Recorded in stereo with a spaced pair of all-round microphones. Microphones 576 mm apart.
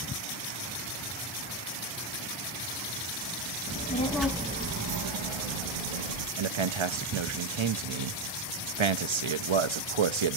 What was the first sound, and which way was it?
A child speaking, 20° left (ahead or behind).